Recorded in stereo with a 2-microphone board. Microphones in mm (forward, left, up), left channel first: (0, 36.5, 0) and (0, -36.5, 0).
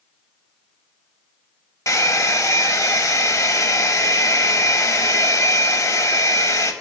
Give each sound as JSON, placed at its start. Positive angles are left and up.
{"t": 1.9, "sound": "a hair dryer", "side_deg": 50, "distance_m": 0.6}